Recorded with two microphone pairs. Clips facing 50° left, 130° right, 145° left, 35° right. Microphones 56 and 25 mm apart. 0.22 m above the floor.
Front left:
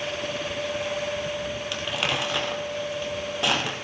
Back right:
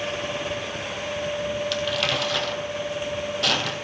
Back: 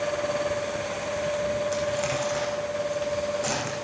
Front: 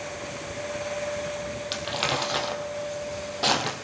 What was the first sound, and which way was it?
Crumpling, 15° right.